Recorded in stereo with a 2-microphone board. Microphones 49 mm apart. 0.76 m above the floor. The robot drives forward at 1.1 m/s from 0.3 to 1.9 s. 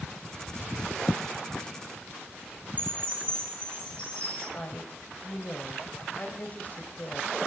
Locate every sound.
2.8 s a chime: 25° left (ahead or behind), 9.5 m
4.5 s a woman speaking: 40° left (ahead or behind), 3 m